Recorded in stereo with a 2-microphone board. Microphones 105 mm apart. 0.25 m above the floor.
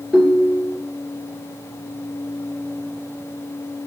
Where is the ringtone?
Centre (ahead or behind), 1.5 m.